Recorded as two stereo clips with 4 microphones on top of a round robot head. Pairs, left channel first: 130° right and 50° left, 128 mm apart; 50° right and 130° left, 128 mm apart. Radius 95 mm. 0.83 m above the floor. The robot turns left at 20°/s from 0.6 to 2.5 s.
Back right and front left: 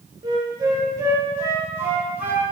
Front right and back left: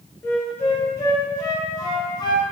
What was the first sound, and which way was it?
A flute, 15° left.